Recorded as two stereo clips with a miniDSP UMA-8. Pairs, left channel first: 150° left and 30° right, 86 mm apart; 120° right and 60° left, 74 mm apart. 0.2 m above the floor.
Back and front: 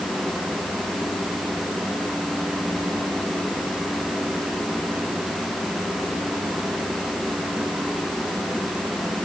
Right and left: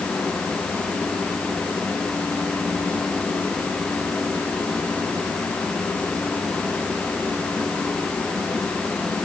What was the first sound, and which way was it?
Only background noise.